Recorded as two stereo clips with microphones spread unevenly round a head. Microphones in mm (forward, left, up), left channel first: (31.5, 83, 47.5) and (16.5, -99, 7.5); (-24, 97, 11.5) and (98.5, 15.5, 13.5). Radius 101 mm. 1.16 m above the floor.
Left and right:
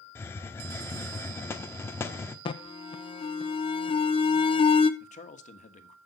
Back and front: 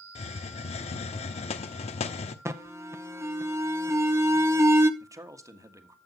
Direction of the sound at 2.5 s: 25° left.